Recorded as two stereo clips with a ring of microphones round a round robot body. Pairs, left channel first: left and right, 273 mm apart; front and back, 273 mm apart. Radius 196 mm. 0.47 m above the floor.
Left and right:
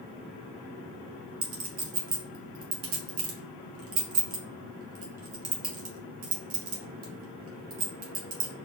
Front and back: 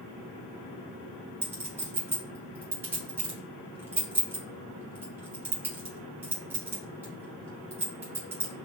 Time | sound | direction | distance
1.4 | a clink | 100° right | 1.1 m